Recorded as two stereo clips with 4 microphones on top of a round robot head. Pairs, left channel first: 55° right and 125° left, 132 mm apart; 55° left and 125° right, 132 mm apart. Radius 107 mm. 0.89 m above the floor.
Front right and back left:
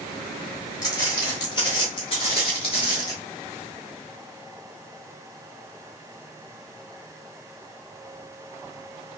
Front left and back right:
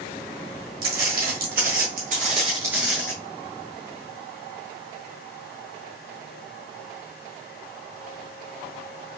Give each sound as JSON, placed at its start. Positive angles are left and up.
{"t": 0.8, "sound": "footsteps", "azimuth_deg": -120, "distance_m": 1.9}